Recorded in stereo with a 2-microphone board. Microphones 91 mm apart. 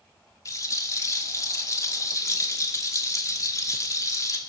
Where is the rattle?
40° left (ahead or behind), 2 m.